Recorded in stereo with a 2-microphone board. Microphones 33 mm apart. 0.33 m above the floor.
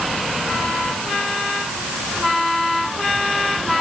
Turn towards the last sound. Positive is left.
No sound to turn to.